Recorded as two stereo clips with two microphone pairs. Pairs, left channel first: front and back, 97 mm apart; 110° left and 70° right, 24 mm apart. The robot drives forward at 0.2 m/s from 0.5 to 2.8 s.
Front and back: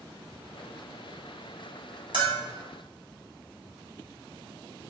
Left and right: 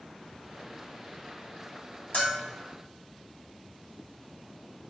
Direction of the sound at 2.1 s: 145° left.